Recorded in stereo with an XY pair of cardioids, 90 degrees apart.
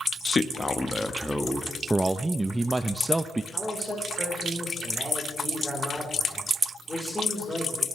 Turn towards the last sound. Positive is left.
turn(degrees=15)